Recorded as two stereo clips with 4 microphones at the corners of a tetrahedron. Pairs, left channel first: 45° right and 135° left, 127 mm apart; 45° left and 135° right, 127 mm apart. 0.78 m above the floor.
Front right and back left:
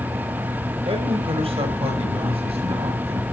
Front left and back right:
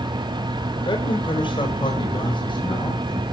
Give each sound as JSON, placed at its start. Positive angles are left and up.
{"t": 0.8, "sound": "a man speaking", "azimuth_deg": 95, "distance_m": 3.5}